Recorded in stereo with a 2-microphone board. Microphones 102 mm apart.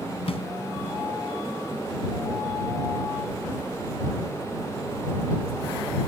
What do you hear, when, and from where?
0.3 s a snare drum: 75° left (ahead or behind)